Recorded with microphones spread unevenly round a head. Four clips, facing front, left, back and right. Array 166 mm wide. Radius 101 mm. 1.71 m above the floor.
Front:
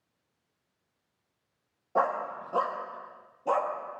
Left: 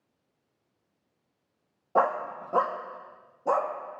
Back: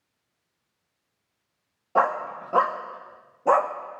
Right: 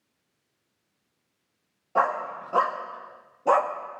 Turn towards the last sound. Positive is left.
turn(degrees=-135)